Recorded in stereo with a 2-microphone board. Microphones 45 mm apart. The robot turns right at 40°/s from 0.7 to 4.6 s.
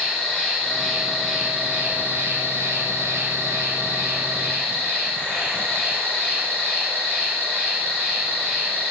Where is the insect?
165° left, 2.5 m; by 8.9 s 40° right, 2.5 m.